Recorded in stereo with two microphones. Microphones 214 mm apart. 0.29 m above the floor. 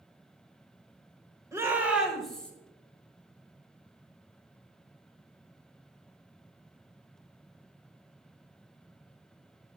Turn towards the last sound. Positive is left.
turn(degrees=5)  # may be behind; listen again after turning